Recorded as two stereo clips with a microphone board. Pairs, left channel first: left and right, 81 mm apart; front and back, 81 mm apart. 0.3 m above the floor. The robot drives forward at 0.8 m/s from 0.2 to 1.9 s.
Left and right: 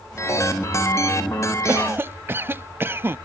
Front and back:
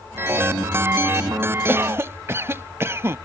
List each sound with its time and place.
1.7 s a cough: 130° right; by 3.2 s 140° right